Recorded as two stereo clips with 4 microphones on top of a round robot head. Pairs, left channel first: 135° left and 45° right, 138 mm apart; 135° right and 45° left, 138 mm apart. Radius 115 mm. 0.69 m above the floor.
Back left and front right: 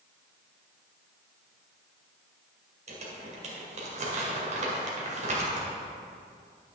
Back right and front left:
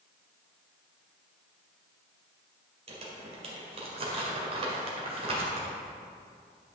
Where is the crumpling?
5° right, 1.9 m.